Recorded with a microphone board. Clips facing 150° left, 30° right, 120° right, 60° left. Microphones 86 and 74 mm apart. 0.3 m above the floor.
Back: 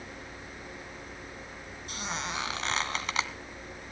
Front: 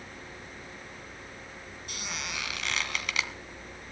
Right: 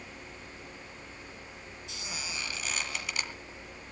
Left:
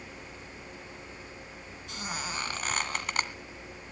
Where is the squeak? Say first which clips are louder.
Back 4 dB, left 6 dB; 95° left, 1.8 m.